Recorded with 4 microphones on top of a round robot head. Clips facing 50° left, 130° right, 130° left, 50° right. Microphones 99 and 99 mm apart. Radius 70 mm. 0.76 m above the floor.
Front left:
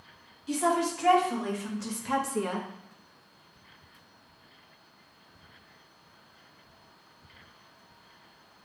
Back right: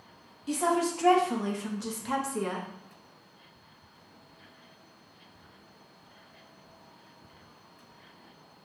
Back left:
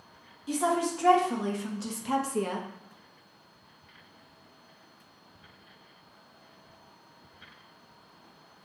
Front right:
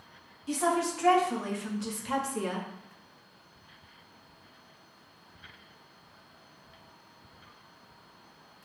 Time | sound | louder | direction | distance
0.5 | a woman speaking | even, back left 1 dB | 155° right | 1.5 m